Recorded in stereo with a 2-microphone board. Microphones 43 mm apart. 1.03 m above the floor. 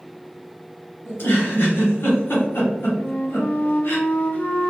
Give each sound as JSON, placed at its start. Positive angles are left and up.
{"t": 1.1, "sound": "a giggle", "side_deg": 65, "distance_m": 1.1}
{"t": 3.0, "sound": "a flute", "side_deg": 40, "distance_m": 0.5}